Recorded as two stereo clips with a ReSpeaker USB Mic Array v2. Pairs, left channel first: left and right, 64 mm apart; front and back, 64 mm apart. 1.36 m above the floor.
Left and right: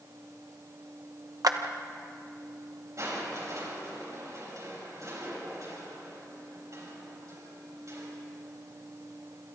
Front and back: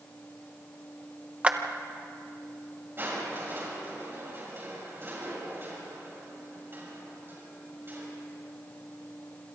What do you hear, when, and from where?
1.4 s a clap: 110° right, 1.0 m
3.0 s crushing: 125° right, 6 m